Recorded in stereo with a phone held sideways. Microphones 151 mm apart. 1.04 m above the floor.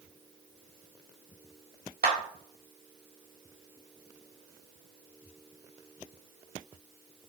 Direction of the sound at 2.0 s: 85° right.